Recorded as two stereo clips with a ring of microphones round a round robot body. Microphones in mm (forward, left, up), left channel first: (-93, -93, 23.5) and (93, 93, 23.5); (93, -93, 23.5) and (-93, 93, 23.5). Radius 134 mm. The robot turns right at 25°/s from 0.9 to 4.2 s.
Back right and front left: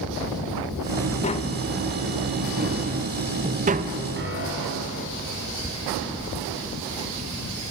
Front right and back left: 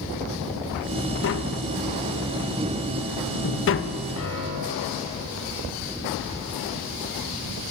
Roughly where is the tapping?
Right.